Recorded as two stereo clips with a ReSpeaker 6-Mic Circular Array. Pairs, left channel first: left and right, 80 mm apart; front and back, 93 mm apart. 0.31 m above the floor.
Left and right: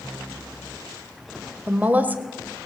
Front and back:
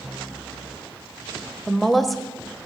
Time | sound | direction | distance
1.7 | a woman speaking | 85° right | 0.9 m